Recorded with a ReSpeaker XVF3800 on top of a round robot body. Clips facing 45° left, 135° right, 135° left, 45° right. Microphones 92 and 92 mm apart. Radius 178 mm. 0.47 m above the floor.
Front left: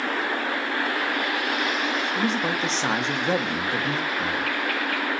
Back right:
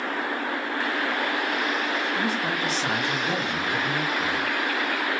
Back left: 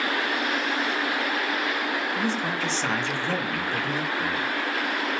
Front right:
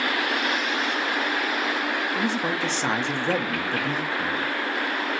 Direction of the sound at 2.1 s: 15° left.